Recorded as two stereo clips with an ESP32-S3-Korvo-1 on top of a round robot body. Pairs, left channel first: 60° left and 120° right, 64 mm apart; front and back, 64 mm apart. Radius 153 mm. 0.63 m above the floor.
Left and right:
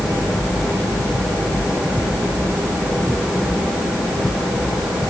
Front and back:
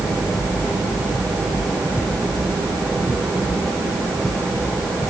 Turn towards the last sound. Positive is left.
No sound to turn to.